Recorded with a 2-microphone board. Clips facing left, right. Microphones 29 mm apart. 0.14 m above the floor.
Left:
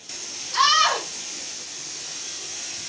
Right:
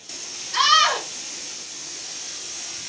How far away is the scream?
About 2.5 m.